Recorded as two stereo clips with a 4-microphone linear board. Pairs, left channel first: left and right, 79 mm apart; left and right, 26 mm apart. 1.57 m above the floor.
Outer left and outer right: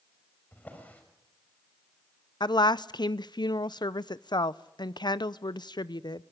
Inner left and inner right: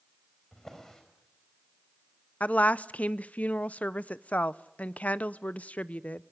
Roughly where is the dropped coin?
No dropped coin in this recording.